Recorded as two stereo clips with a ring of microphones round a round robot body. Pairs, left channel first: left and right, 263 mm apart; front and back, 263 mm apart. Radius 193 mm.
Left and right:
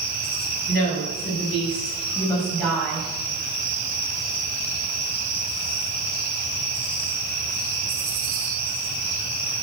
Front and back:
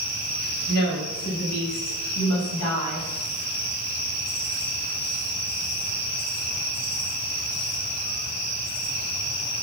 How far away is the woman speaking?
About 4.5 m.